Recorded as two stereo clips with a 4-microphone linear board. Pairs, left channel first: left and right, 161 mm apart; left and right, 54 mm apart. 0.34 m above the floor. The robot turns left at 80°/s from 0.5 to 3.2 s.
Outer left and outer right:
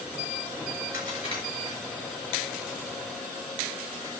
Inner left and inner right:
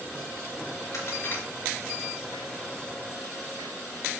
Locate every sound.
0.9 s a crack: 60° left (ahead or behind), 4.5 m; by 1.4 s 25° left (ahead or behind), 4.5 m